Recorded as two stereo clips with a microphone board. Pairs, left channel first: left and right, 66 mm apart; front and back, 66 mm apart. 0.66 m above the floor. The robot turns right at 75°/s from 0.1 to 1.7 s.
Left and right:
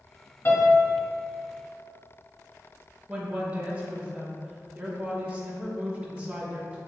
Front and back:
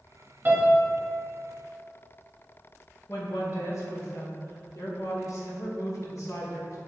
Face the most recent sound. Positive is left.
turn(degrees=-25)